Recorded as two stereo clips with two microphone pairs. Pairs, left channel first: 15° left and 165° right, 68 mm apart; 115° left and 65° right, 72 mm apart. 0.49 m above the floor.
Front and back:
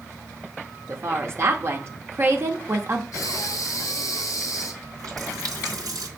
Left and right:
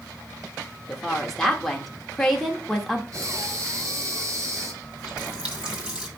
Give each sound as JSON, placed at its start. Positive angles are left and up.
{"t": 0.9, "sound": "a woman speaking", "azimuth_deg": -160, "distance_m": 1.1}
{"t": 3.1, "sound": "breathing", "azimuth_deg": -20, "distance_m": 1.9}
{"t": 4.8, "sound": "a running tap", "azimuth_deg": -140, "distance_m": 2.0}